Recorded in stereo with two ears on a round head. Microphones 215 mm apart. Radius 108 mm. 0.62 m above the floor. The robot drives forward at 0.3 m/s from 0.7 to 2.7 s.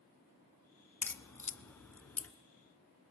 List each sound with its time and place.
1.0 s a crack: 10° left (ahead or behind), 0.7 m; by 2.3 s 5° left (ahead or behind), 1.0 m